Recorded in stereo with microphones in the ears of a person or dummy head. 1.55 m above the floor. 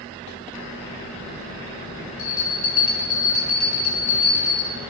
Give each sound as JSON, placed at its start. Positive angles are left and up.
{"t": 2.2, "sound": "a bell", "side_deg": 35, "distance_m": 1.0}